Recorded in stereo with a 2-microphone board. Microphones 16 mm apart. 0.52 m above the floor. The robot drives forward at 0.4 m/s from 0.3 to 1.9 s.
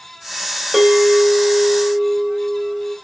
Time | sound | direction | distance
0.7 | a bell | 20° right (ahead or behind) | 2.5 m